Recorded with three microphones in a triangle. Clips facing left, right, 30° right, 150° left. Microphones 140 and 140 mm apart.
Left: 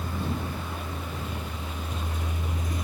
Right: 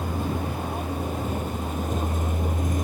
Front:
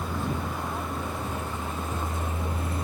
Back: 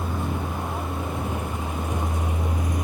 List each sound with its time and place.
0.0 s a vehicle: 135° right